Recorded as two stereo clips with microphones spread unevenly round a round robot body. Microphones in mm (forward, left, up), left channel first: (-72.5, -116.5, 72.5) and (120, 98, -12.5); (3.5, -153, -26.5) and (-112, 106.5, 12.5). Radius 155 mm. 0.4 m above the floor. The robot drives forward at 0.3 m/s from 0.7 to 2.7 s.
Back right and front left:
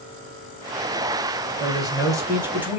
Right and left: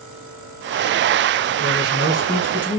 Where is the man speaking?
10° left, 1.3 m; by 2.8 s 20° left, 1.2 m.